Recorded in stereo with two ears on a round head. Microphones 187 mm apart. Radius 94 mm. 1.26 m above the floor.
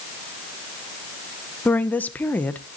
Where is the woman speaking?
10° left (ahead or behind), 0.7 m.